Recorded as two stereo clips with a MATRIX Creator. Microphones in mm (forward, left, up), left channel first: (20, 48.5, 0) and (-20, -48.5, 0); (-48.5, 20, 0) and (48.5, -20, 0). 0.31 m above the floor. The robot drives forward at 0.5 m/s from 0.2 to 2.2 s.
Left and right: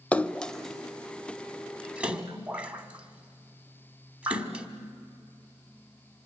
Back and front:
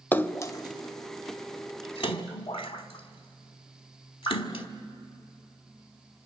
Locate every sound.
0.1 s a splash: 120° left, 0.5 m; by 4.7 s 170° left, 1.2 m